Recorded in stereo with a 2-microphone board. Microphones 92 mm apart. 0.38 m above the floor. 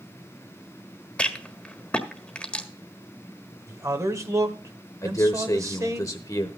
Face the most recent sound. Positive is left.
turn(degrees=40)  # may be behind; listen again after turning